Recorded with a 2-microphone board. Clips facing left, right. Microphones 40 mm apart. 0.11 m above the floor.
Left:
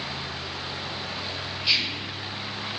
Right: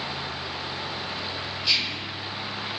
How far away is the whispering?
About 2.0 m.